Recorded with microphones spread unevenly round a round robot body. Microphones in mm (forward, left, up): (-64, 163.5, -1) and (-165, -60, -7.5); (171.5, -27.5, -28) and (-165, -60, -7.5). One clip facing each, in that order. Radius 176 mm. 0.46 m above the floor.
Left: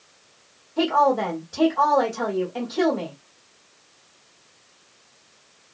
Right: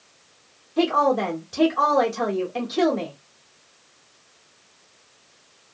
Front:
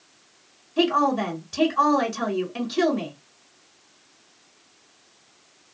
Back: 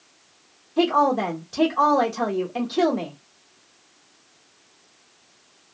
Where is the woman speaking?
80° right, 1.2 m.